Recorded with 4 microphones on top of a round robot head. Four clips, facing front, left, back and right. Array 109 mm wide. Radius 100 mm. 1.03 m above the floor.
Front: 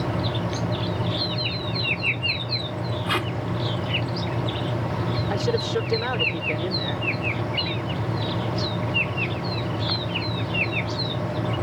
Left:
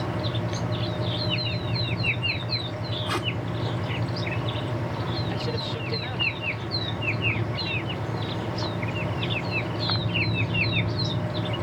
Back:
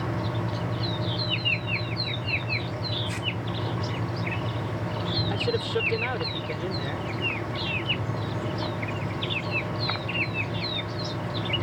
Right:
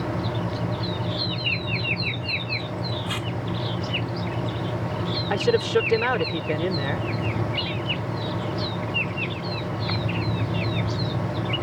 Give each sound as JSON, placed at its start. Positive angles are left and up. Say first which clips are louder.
{"t": 3.1, "sound": "tape being pulled", "louder": "left 2 dB, front 7 dB", "azimuth_deg": 25}
{"t": 5.3, "sound": "a man speaking", "louder": "right 10 dB, front 3 dB", "azimuth_deg": -85}